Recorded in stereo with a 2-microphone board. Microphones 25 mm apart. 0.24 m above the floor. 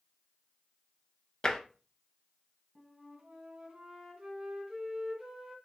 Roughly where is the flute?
Right.